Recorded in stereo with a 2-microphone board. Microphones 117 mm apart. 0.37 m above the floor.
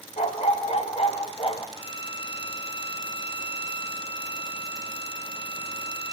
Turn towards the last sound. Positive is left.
turn(degrees=50)  # may be behind; listen again after turning